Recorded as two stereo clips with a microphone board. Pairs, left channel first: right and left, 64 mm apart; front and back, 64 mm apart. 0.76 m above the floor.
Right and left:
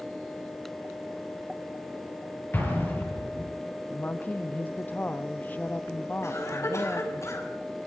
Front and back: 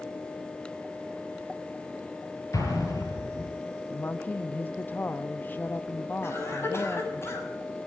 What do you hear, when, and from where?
2.5 s an explosion: 30° right, 6.5 m
3.9 s a woman speaking: 40° right, 0.7 m
6.2 s a cough: 50° right, 6.5 m